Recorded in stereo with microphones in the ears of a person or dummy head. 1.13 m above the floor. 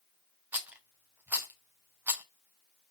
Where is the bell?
I don't hear a bell.